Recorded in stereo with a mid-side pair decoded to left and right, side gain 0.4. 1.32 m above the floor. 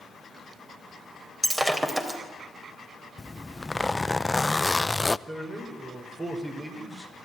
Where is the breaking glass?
15° right, 4 m.